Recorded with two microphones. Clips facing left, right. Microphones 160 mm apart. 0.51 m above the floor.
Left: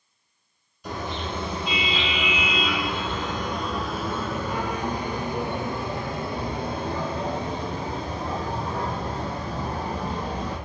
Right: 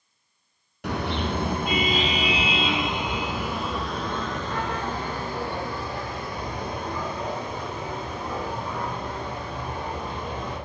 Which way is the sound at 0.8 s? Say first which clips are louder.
Right 4 dB; 75° right (ahead or behind).